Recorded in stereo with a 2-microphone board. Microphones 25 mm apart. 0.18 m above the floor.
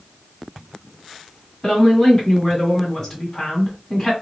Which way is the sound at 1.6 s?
15° left (ahead or behind).